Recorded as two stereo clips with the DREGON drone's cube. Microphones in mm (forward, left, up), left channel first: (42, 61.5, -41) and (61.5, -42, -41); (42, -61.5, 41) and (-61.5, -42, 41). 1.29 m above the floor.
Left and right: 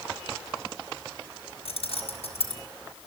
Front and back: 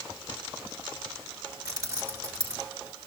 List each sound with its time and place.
1.6 s keys jangling: 115° left, 4.5 m